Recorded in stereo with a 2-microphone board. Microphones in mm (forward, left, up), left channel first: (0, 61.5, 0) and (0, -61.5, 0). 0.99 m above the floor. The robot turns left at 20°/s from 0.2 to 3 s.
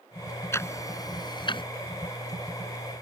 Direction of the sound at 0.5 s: 20° left (ahead or behind).